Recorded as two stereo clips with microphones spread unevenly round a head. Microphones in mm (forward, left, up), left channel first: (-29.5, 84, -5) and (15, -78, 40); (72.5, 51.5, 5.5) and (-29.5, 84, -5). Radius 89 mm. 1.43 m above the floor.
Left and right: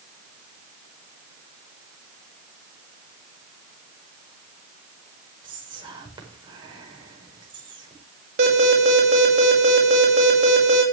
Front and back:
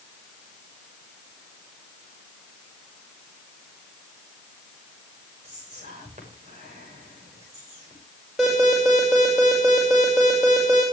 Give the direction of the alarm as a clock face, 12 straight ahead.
4 o'clock.